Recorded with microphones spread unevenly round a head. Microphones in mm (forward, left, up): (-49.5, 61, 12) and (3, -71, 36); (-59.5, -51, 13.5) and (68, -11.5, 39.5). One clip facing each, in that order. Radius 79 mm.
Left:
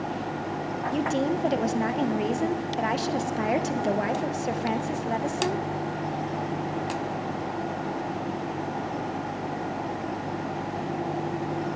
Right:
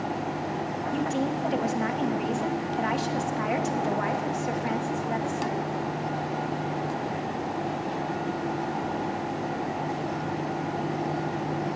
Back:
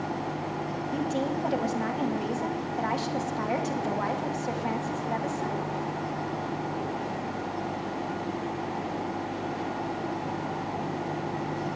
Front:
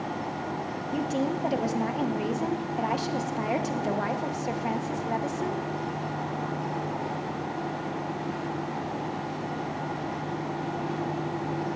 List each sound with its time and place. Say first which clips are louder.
0.9 s a woman speaking: left 2 dB, front 2 dB; 100° left, 1.1 m